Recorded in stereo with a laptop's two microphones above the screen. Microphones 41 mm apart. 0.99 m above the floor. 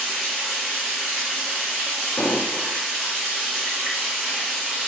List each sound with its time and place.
0.0 s running water: 15° right (ahead or behind), 1.8 m
2.2 s an explosion: 60° left (ahead or behind), 0.6 m